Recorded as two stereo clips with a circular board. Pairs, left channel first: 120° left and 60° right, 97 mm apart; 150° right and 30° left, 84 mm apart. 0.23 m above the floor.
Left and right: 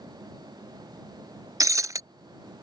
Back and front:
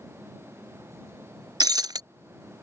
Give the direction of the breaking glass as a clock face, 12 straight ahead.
12 o'clock.